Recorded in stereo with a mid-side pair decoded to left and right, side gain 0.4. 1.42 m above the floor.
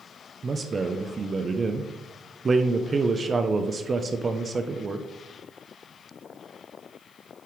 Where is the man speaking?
40° right, 0.7 m.